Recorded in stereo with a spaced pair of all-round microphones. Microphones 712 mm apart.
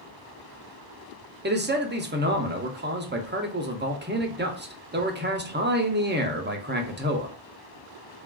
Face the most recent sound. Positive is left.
turn(degrees=-15)  # may be behind; listen again after turning